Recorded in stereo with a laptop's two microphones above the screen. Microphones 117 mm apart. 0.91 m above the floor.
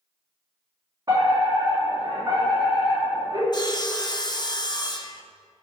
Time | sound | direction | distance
1.1 | a fire alarm | 30° right (ahead or behind) | 2.5 m
3.5 | sawing | 35° left (ahead or behind) | 0.5 m